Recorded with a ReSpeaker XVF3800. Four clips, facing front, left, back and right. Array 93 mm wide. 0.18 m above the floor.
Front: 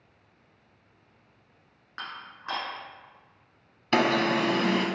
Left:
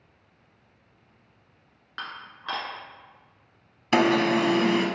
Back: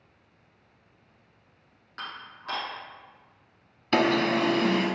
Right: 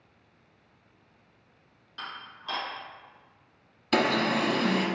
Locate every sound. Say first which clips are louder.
2.0 s dishes clattering: left 3 dB, even; 70° left, 1.5 m
3.9 s an alarm: left 4 dB, back 1 dB; 75° left, 0.7 m